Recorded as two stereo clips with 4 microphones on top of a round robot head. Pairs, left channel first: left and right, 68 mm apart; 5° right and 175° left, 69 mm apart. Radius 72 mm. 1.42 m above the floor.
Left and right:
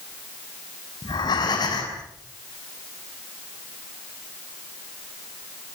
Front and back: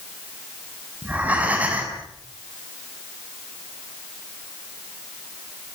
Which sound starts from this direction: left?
Breathing, at 1.0 s.